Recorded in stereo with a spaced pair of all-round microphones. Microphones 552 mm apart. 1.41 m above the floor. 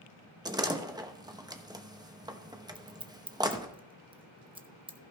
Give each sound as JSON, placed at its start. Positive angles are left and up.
{"t": 0.5, "sound": "a door slam", "side_deg": -5, "distance_m": 0.9}
{"t": 2.8, "sound": "scissors", "side_deg": -10, "distance_m": 0.7}